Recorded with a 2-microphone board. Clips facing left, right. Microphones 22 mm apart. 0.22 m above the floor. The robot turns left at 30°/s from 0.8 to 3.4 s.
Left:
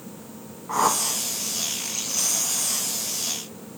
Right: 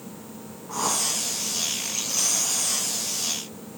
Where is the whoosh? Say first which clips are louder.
Left 4 dB; 40° left (ahead or behind), 1.1 m; by 1.2 s 35° left (ahead or behind), 1.1 m.